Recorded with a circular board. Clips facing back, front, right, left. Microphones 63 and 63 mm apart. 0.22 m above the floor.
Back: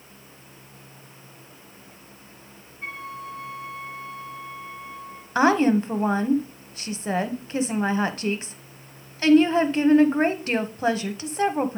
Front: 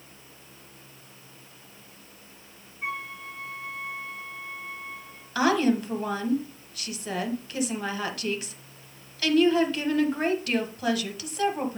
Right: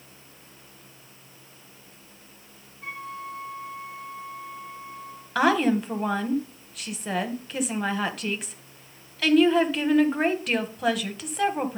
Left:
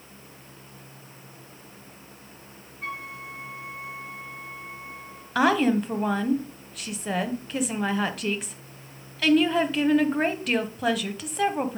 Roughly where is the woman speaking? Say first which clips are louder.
Back 4 dB, even; behind.